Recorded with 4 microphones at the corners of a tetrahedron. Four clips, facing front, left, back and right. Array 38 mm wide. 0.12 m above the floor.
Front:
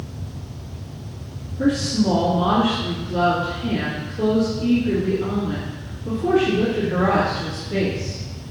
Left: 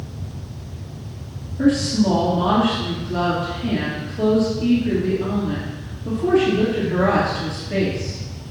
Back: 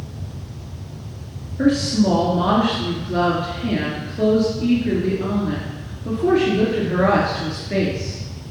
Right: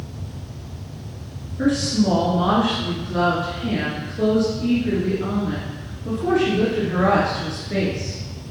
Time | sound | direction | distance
1.6 | a woman speaking | straight behind | 2.5 m